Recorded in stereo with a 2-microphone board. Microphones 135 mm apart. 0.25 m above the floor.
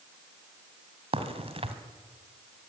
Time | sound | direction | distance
1.1 | a crack | 45° right (ahead or behind) | 2 m